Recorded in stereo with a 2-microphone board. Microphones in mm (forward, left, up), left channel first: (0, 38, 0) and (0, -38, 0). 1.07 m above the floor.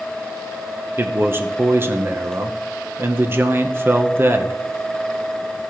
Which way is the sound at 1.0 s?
30° right (ahead or behind).